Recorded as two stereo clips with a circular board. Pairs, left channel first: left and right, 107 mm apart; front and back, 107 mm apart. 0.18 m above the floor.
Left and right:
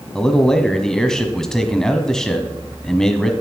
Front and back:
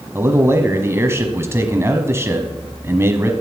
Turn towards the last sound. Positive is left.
turn(degrees=165)